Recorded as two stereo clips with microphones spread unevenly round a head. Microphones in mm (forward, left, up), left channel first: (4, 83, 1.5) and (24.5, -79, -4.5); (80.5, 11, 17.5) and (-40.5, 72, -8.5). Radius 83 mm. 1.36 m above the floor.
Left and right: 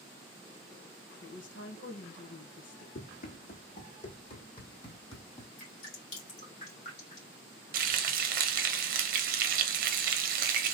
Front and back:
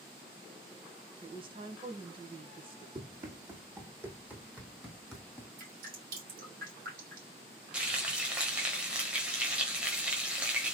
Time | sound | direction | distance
1.2 | a woman speaking | 110° left | 1.4 m
3.0 | running footsteps | 95° left | 2.5 m
5.6 | dripping | 145° left | 2.5 m
7.7 | frying | 125° right | 0.9 m